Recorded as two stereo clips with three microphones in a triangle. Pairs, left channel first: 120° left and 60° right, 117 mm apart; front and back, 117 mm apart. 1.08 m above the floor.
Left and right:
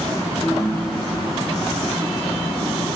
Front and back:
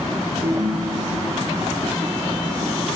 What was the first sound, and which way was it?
A ringtone, 175° right.